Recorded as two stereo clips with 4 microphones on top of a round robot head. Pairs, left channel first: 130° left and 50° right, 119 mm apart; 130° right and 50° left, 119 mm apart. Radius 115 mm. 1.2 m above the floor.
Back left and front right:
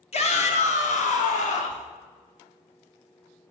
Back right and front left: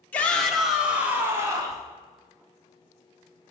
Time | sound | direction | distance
0.1 | a shout | 155° left | 2.5 m